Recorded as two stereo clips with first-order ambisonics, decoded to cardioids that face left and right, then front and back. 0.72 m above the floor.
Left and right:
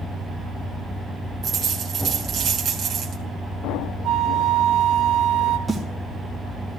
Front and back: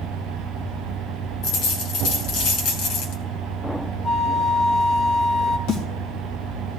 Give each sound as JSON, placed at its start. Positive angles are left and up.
{"t": 1.4, "sound": "a dropped coin", "azimuth_deg": -35, "distance_m": 2.5}
{"t": 4.0, "sound": "a flute", "azimuth_deg": -65, "distance_m": 3.0}
{"t": 5.7, "sound": "a snare drum", "azimuth_deg": -10, "distance_m": 3.0}